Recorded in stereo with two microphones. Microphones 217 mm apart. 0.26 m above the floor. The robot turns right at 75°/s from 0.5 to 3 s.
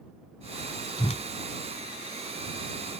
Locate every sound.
1.0 s a whoosh: 20° left (ahead or behind); by 1.2 s 40° left (ahead or behind)